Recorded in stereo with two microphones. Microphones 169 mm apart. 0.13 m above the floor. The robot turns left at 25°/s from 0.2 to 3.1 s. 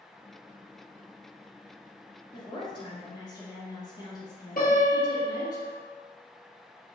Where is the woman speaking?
25° left (ahead or behind), 1.3 m.